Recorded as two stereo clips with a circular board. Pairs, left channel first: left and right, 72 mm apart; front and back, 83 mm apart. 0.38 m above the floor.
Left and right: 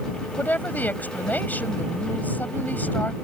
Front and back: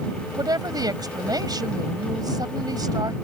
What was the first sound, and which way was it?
A woman speaking, 150° left.